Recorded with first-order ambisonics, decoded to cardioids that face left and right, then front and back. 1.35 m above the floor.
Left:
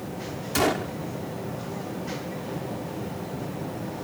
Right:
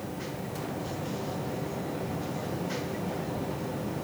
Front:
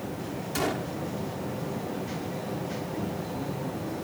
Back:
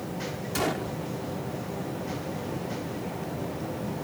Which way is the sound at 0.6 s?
95° left.